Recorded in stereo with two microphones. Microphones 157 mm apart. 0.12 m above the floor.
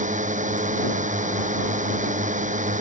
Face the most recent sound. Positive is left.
turn(degrees=-55)  # may be behind; listen again after turning